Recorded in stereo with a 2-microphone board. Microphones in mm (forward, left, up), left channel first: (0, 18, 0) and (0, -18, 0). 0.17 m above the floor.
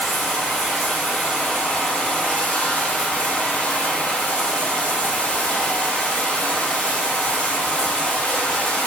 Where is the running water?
35° left (ahead or behind), 1.9 m.